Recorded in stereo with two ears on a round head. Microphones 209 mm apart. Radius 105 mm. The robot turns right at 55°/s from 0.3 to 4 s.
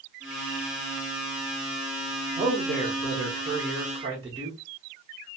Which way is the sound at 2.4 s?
130° right.